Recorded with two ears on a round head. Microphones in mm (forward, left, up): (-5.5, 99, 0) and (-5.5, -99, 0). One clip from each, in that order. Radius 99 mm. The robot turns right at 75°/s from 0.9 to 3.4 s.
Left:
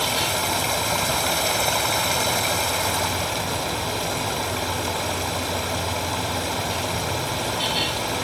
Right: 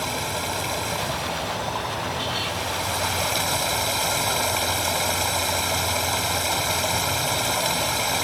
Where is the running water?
15° left; by 8.2 s 155° right.